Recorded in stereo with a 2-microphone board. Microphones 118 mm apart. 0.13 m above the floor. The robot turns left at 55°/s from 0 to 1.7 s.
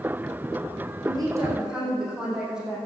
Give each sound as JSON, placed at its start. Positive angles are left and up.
{"t": 1.0, "sound": "a woman speaking", "azimuth_deg": -135, "distance_m": 7.0}